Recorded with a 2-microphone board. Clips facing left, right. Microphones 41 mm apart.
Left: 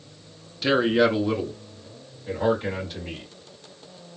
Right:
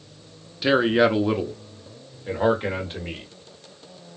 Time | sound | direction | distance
0.6 | a man speaking | 10° right (ahead or behind) | 0.8 m